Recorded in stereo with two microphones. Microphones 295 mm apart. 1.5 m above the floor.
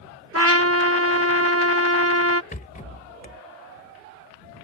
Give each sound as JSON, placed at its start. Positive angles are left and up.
{"t": 0.3, "sound": "a trumpet", "side_deg": -50}
{"t": 2.5, "sound": "a rattle", "side_deg": 25}